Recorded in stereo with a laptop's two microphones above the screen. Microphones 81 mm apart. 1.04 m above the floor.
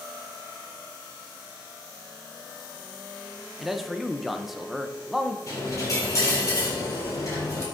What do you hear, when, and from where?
3.6 s a man speaking: centre (ahead or behind), 0.9 m
5.5 s a dropped coin: 35° left (ahead or behind), 4 m